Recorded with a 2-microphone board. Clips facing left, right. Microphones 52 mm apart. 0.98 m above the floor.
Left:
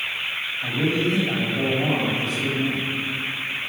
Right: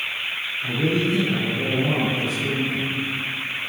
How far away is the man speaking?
About 5.5 m.